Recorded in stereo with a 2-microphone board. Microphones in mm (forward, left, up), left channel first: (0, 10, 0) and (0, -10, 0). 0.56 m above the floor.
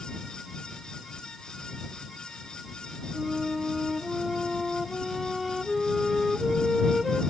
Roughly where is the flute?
Centre.